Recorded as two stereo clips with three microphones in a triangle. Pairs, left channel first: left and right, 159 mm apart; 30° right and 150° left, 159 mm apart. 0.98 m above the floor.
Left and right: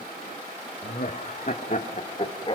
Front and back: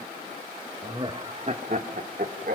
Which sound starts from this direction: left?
Laughter, at 0.8 s.